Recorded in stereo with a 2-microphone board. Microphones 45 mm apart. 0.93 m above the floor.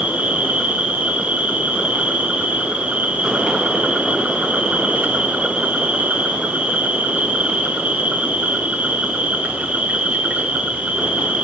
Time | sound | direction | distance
0.0 | an insect | 30° right (ahead or behind) | 4 m